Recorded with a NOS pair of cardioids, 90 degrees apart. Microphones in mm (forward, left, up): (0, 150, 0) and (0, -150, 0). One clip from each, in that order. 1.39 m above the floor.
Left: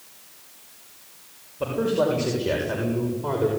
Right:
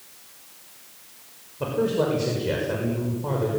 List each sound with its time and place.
1.6 s a man speaking: 5° left, 6.5 m; by 3.5 s 20° left, 6 m